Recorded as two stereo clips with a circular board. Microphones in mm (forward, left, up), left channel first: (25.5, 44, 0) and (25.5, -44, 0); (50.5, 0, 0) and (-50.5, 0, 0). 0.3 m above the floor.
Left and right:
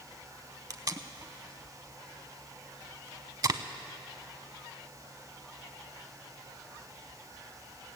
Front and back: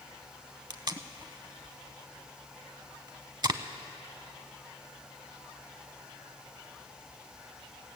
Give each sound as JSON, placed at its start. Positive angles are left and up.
{"t": 0.7, "sound": "tape being pulled", "azimuth_deg": -135, "distance_m": 0.5}